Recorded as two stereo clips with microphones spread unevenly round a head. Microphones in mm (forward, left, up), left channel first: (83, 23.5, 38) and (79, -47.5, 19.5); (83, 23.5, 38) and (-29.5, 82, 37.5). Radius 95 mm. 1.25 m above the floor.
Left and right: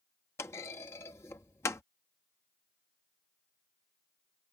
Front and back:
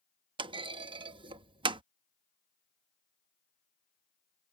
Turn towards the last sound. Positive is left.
turn(degrees=120)